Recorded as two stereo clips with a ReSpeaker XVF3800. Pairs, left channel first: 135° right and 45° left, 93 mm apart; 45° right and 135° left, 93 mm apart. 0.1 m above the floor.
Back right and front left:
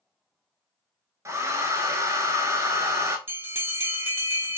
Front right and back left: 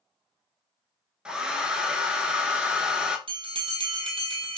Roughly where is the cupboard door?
No cupboard door in this recording.